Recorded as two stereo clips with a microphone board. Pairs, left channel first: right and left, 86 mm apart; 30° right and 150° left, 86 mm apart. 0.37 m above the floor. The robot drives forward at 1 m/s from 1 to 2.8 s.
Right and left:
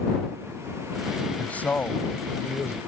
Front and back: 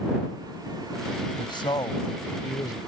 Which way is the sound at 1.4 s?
15° right.